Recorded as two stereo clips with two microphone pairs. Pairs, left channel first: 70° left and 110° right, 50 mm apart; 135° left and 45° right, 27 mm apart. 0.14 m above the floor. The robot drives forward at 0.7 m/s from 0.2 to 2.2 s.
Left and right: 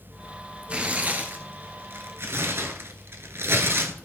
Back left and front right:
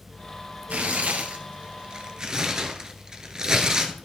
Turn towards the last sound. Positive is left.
turn(degrees=-100)